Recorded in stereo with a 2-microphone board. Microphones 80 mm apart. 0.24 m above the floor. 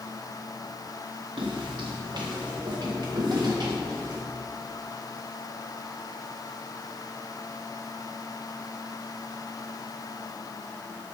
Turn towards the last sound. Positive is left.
turn(degrees=-55)  # may be behind; listen again after turning